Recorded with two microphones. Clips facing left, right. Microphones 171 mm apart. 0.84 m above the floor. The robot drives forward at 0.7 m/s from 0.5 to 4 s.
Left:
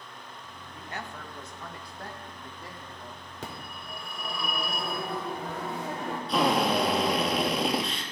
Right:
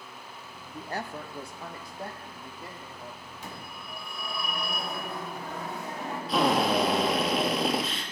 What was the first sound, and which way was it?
A woman speaking, 35° right (ahead or behind).